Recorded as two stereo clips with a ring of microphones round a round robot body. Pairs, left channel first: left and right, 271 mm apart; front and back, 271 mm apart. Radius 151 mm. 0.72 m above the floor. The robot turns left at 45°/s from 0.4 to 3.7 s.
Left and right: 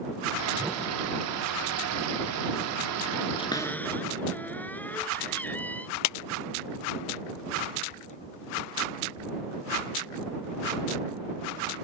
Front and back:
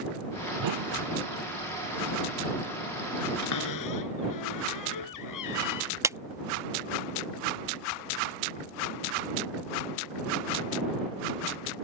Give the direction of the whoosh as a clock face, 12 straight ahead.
6 o'clock.